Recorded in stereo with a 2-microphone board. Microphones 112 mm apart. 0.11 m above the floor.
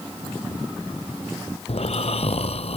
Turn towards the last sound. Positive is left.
turn(degrees=70)  # may be behind; listen again after turning